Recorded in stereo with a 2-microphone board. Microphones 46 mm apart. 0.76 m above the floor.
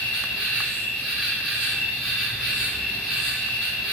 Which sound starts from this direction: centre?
An insect, at 0.0 s.